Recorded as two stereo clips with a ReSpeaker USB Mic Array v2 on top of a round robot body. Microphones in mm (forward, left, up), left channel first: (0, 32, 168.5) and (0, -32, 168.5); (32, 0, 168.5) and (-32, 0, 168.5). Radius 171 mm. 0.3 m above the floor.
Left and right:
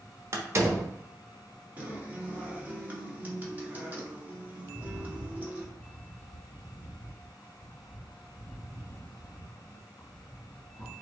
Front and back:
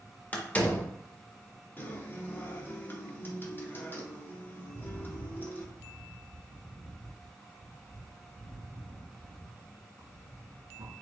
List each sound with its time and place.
0.3 s a door slam: 65° right, 1.3 m
1.8 s a guitar: 40° right, 1.8 m
4.7 s a rattle: 165° left, 2.0 m